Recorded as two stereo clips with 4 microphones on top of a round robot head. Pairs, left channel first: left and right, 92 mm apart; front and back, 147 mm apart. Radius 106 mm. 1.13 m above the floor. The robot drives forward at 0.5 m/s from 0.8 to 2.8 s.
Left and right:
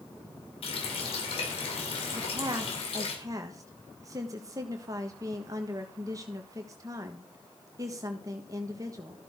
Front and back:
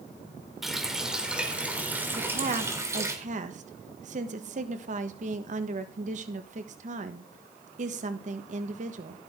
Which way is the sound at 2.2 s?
135° right.